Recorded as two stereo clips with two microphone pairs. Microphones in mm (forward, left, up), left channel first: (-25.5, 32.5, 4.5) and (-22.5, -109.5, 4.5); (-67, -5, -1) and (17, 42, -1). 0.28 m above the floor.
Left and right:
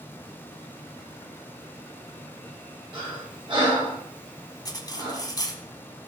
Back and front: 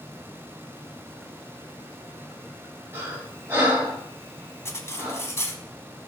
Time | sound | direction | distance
2.9 | breathing | 35° right | 5.5 m
4.7 | cutlery clinking | 150° left | 1.2 m